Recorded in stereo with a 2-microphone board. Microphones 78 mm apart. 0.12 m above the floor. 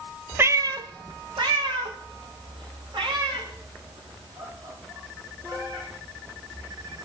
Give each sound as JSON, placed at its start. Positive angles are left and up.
{"t": 0.4, "sound": "a cat meowing", "side_deg": -30, "distance_m": 0.7}